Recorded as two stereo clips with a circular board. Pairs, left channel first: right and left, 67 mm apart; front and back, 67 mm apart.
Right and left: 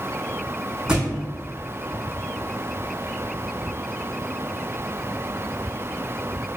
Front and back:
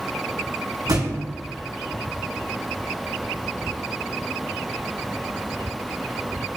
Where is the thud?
170° left, 1.9 m.